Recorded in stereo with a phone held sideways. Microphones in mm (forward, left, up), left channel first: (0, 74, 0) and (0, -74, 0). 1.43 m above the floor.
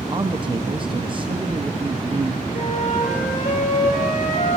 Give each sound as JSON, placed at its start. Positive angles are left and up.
{"t": 0.1, "sound": "a man speaking", "side_deg": -35, "distance_m": 0.8}
{"t": 2.5, "sound": "a flute", "side_deg": 65, "distance_m": 6.5}